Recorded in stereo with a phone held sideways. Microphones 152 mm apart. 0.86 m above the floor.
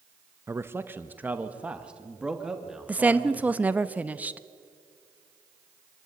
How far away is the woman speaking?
About 0.7 m.